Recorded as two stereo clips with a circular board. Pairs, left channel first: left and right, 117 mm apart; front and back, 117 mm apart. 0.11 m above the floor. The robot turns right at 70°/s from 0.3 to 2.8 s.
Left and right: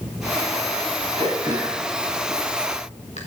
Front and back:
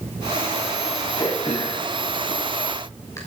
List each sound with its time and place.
1.2 s throat clearing: 50° right, 4.5 m; by 3.2 s 65° left, 4.5 m